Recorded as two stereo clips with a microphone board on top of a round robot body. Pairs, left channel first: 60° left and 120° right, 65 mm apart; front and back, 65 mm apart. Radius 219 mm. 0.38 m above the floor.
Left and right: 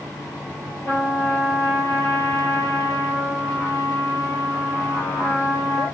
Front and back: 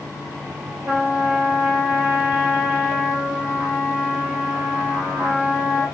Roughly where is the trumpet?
Behind left.